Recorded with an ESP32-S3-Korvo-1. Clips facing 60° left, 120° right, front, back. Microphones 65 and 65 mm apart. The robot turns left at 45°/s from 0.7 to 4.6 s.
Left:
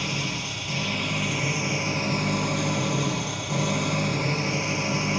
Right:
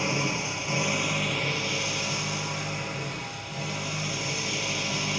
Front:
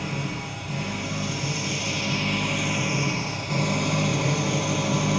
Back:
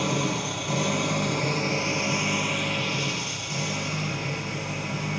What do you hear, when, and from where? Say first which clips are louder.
0.0 s an engine running: right 2 dB, back 4 dB; 170° left, 4.5 m; by 5.2 s 5° right, 4.5 m